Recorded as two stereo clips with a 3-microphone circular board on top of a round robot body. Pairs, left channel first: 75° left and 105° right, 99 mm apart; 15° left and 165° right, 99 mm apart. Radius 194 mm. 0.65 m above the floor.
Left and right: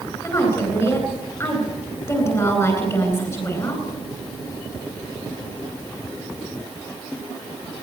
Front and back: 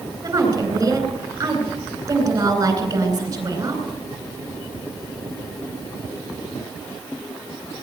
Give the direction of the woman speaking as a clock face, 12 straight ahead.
7 o'clock.